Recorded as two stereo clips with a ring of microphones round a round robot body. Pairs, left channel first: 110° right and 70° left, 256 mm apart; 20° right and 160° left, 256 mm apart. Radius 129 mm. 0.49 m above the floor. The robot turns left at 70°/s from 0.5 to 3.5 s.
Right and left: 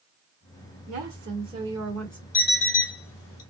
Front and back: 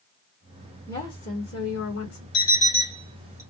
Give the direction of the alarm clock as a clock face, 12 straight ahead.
2 o'clock.